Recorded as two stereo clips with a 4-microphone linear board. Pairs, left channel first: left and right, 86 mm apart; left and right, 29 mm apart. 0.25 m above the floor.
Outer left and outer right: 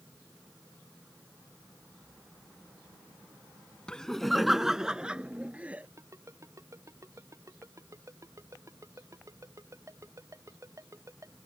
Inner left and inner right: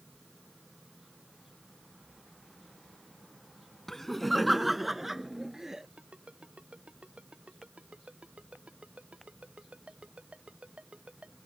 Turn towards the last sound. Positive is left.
turn(degrees=-40)  # may be behind; listen again after turning